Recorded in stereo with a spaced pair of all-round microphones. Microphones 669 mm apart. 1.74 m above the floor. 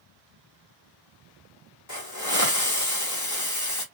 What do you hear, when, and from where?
1.9 s a hiss: 25° left (ahead or behind), 1.3 m